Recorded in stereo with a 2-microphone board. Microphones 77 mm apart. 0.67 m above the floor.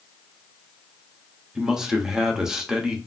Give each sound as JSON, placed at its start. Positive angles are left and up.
{"t": 1.6, "sound": "a man speaking", "side_deg": -5, "distance_m": 0.6}